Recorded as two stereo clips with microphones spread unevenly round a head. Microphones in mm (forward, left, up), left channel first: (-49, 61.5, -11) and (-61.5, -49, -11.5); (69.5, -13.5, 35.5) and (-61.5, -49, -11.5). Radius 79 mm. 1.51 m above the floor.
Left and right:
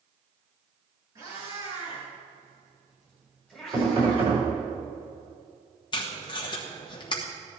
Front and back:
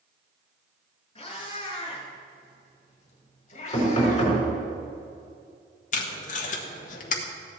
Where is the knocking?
40° right, 5 m.